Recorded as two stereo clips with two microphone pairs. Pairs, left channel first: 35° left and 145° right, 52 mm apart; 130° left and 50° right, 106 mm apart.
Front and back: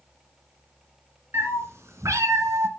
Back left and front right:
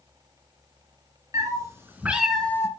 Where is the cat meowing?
110° right, 2.5 m; by 2.7 s 175° right, 1.1 m.